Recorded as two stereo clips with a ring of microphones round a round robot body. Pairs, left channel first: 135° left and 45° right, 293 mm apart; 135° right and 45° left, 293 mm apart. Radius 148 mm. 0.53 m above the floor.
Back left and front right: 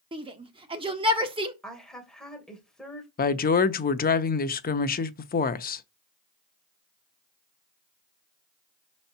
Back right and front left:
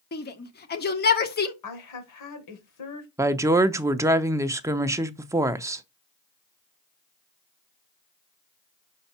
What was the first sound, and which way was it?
A shout, 105° right.